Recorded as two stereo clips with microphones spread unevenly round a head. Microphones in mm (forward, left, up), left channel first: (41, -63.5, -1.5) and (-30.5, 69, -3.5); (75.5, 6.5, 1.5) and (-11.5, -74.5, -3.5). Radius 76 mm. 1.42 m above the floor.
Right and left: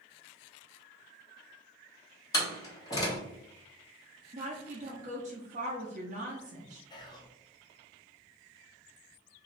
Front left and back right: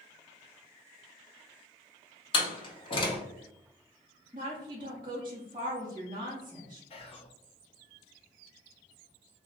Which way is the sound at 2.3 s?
5° left.